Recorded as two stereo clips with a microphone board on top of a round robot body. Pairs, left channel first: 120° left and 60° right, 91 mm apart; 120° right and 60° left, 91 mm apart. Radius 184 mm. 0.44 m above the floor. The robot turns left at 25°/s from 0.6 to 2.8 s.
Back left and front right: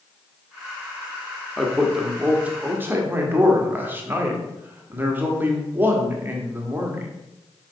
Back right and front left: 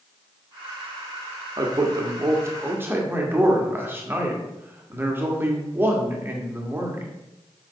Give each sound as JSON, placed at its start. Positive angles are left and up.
{"t": 1.6, "sound": "a man speaking", "azimuth_deg": 30, "distance_m": 1.7}